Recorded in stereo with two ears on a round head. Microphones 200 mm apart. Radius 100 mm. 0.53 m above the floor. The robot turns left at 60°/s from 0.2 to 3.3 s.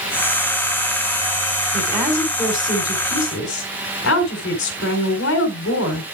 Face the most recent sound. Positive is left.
turn(degrees=110)